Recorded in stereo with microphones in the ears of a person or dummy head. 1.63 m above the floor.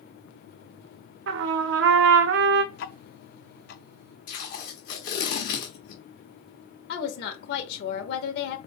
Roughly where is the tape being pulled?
Left.